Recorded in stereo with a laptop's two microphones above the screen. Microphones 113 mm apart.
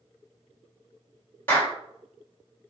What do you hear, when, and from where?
1.5 s a clap: 20° left (ahead or behind), 2.5 m